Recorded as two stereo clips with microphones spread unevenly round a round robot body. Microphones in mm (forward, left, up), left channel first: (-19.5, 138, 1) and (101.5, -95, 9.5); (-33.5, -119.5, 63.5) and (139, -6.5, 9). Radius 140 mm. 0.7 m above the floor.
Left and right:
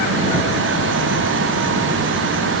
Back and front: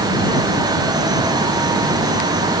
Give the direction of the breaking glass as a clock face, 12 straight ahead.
I don't hear breaking glass.